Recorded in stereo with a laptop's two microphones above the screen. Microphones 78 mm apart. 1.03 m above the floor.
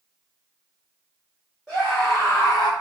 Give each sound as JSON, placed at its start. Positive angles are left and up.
{"t": 1.7, "sound": "a scream", "side_deg": -5, "distance_m": 1.3}